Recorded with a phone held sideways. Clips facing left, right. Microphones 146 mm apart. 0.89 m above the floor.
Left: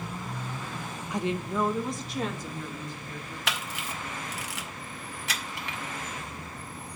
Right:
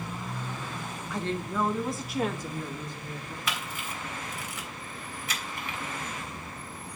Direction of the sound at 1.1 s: 20° left (ahead or behind).